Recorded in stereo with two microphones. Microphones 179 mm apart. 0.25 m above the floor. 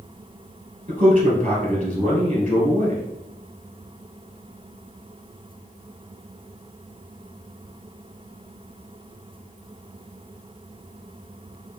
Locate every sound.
0.9 s a man speaking: 45° right (ahead or behind), 1.9 m